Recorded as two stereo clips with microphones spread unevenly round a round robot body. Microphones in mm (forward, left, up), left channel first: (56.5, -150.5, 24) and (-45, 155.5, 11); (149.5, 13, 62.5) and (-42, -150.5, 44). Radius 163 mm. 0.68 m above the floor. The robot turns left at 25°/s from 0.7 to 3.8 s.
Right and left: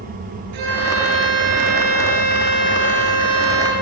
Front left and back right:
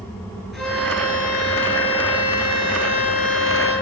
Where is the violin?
130° left, 9.5 m; by 3.7 s 55° left, 9.5 m.